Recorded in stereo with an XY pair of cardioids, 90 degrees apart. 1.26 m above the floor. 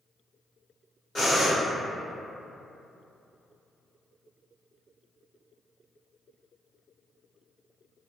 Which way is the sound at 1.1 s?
30° left.